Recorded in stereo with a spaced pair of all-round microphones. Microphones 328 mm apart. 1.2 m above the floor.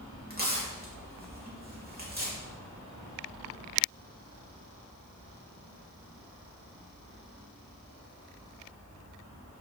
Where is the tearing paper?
30° right (ahead or behind), 2.5 m.